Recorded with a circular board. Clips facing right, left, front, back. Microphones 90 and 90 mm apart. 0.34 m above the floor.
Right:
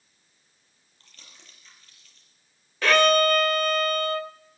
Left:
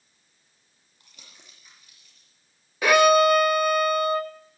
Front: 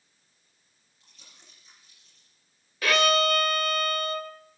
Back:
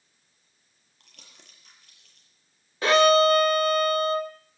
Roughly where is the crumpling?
Behind.